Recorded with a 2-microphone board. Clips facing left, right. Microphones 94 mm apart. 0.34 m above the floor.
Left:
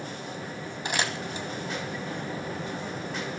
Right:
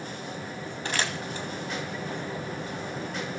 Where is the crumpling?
15° left (ahead or behind), 2.5 m.